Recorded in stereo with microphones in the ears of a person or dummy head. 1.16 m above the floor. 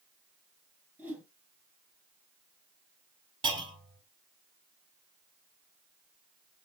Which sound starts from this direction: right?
A clunk, at 3.4 s.